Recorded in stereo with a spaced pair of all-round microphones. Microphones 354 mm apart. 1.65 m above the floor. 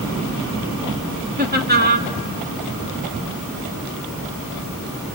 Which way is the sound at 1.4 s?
25° right (ahead or behind).